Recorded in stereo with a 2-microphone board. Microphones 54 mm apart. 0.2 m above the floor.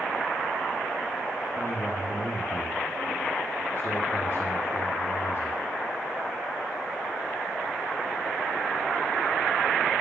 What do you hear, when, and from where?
1.6 s a man speaking: 50° left (ahead or behind), 3.5 m